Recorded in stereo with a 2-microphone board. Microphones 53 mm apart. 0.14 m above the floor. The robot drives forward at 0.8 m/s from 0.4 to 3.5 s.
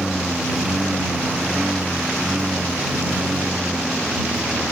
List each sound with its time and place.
0.0 s a lawn mower: 5° right (ahead or behind); by 4.7 s 10° right (ahead or behind)